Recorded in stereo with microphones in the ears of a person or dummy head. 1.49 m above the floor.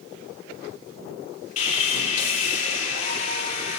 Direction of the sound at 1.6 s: 45° left (ahead or behind).